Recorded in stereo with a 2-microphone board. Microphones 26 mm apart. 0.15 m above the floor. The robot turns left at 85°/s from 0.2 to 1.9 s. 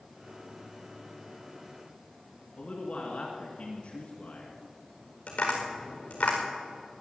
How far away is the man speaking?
About 1.9 m.